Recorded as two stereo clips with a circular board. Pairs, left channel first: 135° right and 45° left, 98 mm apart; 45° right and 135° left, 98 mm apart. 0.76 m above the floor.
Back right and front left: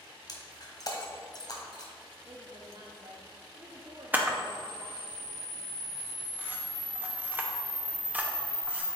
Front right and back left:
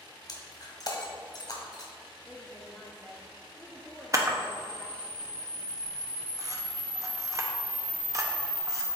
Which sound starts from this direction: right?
Breaking glass, at 0.3 s.